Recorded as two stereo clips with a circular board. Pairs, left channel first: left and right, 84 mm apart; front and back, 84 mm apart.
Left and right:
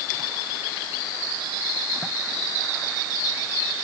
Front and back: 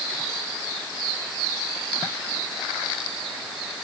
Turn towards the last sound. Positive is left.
No sound to turn to.